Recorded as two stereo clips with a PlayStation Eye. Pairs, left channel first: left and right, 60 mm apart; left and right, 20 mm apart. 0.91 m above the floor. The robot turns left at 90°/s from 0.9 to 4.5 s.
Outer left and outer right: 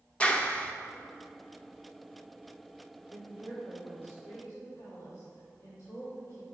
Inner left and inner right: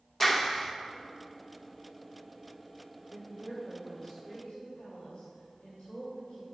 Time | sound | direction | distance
0.2 | a clap | 20° left (ahead or behind) | 0.6 m
3.1 | a woman speaking | 130° right | 2.5 m